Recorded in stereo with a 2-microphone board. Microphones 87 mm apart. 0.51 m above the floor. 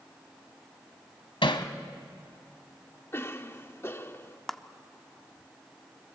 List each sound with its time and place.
1.4 s hammering: 80° left, 1.3 m
3.1 s a cough: 30° left (ahead or behind), 1.1 m
4.5 s a clap: 5° left (ahead or behind), 0.7 m